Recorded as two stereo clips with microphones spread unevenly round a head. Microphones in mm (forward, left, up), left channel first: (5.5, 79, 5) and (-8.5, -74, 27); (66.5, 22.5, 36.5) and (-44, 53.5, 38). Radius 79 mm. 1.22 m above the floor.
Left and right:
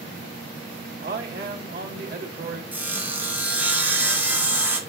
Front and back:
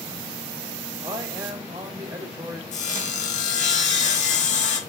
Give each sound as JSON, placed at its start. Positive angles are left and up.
{"t": 1.0, "sound": "a man speaking", "azimuth_deg": -125, "distance_m": 2.0}
{"t": 2.7, "sound": "sawing", "azimuth_deg": -15, "distance_m": 1.5}